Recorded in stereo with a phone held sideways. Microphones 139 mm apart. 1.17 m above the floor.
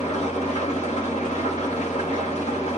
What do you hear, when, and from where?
0.0 s an engine running: 55° left (ahead or behind), 1.0 m